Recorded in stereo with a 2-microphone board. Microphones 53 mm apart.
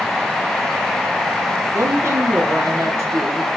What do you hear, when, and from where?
1.7 s a woman speaking: 65° right (ahead or behind), 5 m